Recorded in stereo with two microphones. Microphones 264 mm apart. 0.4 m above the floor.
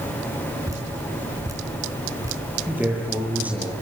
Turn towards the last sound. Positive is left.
turn(degrees=-5)  # may be behind; listen again after turning